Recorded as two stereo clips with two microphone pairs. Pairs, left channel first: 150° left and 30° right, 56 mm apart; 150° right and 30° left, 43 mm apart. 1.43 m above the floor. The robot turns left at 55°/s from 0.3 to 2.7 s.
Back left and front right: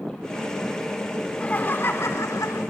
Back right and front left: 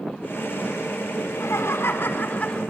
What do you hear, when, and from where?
1.2 s laughter: 135° right, 4 m; by 2.6 s 150° left, 4 m